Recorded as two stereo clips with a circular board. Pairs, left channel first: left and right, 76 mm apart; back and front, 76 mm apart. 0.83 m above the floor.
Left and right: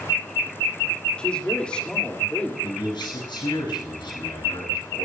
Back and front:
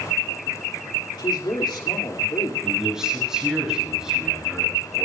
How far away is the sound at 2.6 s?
About 7.5 m.